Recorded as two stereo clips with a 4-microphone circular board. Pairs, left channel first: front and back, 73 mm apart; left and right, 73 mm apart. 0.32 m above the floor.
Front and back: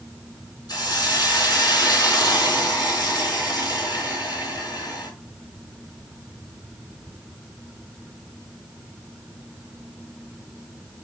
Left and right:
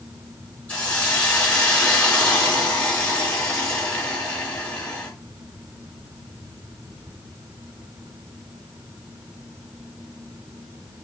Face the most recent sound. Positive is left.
turn(degrees=20)